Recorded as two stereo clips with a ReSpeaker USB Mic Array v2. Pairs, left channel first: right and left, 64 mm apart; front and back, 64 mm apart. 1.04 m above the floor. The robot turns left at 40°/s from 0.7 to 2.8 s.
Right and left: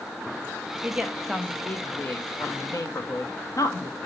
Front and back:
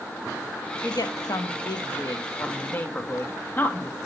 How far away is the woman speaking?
About 1.2 m.